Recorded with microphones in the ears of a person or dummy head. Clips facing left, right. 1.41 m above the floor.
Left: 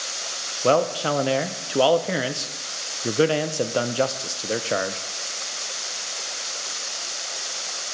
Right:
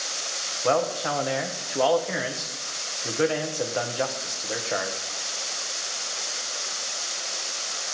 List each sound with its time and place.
0.6 s a man speaking: 50° left (ahead or behind), 0.5 m